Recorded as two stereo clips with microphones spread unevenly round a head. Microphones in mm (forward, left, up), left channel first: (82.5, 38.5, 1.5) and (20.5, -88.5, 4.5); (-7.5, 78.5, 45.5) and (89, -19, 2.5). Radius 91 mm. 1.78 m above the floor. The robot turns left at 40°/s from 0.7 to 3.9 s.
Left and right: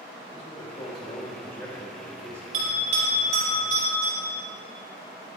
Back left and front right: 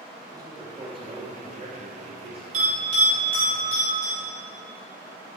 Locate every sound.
0.3 s a man speaking: 25° left, 3 m; by 2.4 s 45° right, 3 m
2.5 s a bell: 95° right, 4 m; by 4.1 s 150° right, 4 m